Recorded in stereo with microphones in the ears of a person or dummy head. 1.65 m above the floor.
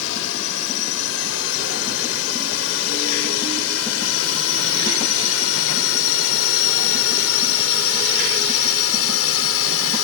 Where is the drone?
75° left (ahead or behind); by 10.1 s 80° left.